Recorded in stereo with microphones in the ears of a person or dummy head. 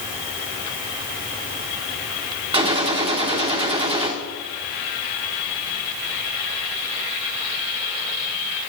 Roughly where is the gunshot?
Right.